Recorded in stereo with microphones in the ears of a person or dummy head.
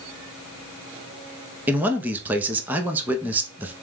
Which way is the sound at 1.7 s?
5° right (ahead or behind).